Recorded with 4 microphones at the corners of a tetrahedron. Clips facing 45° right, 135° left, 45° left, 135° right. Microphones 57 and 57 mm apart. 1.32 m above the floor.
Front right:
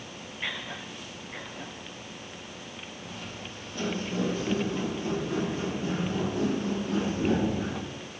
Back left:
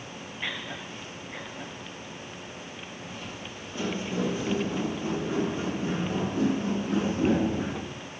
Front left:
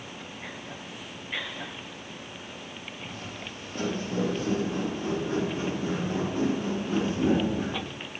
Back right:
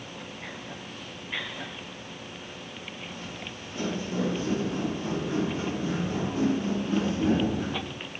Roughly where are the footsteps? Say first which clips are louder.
Back left 1 dB, even; ahead left.